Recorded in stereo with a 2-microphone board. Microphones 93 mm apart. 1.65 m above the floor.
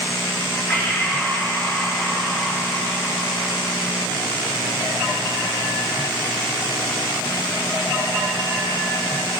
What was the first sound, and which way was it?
Breathing, 25° left (ahead or behind).